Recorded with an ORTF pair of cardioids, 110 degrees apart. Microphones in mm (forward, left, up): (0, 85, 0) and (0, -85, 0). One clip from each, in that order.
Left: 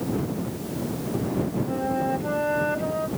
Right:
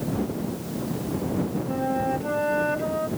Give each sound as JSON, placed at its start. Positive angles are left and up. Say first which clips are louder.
{"t": 1.7, "sound": "a flute", "louder": "right 1 dB", "azimuth_deg": -5}